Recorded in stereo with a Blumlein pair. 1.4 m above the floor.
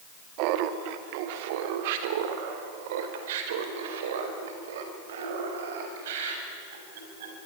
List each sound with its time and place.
0.4 s laughter: 45° right, 2 m; by 7.5 s 55° right, 8 m